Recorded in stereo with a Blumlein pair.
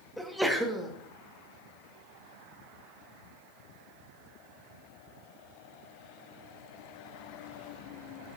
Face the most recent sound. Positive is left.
turn(degrees=0)